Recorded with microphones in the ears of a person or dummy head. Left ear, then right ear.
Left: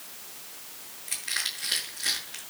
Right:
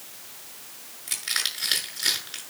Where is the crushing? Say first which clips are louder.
Right 3 dB; 45° right (ahead or behind), 6.5 m.